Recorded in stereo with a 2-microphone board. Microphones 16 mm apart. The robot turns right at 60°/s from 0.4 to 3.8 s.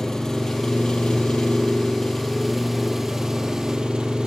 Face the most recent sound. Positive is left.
turn(degrees=-115)